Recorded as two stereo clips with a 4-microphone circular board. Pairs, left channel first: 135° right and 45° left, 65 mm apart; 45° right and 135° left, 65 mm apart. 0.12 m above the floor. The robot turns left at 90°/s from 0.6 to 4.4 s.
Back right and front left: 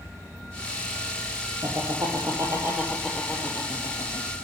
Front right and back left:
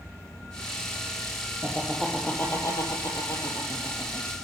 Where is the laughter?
85° left, 4.5 m; by 4.3 s 155° right, 4.5 m.